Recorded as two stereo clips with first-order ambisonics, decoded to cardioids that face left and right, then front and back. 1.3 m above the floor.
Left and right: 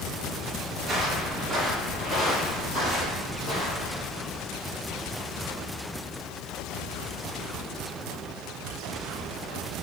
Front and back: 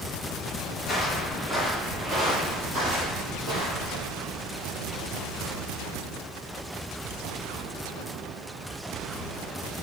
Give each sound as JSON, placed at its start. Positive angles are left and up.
{"t": 0.8, "sound": "footsteps", "azimuth_deg": -55, "distance_m": 1.4}